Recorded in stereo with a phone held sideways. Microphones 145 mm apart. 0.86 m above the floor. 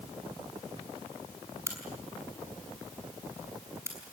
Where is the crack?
15° right (ahead or behind), 5.5 m.